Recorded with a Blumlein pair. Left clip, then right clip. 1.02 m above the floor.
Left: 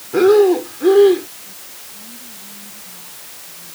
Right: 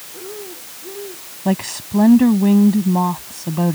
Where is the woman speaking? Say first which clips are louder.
Right 15 dB; 45° right.